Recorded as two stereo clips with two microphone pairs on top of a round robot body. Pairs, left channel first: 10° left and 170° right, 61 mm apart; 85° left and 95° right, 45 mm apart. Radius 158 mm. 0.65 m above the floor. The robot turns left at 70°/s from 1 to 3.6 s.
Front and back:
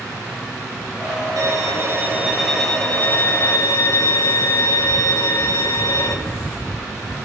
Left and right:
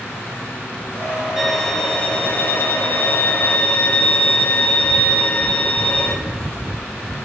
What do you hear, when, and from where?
1.4 s a violin: 175° right, 4.5 m; by 6.2 s 25° left, 4.5 m